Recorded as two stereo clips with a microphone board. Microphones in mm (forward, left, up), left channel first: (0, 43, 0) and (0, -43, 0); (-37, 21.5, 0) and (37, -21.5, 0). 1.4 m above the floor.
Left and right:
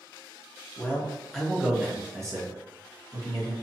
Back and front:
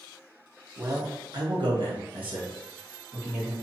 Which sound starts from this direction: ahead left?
A man speaking, at 0.8 s.